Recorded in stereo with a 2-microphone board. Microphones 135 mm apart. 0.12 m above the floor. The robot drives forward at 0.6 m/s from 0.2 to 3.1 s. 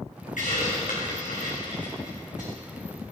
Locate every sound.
0.4 s a hiss: 80° left, 3.5 m; by 2.5 s 75° left (ahead or behind), 3.5 m